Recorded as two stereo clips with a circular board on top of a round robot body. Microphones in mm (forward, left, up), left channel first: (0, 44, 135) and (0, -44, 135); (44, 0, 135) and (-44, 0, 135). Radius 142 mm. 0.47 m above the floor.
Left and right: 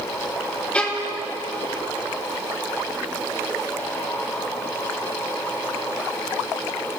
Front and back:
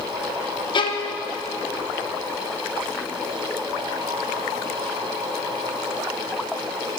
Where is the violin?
15° left, 1.3 m.